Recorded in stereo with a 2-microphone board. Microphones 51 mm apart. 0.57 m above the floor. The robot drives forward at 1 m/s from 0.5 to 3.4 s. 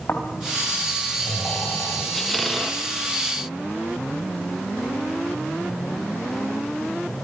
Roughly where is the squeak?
Centre.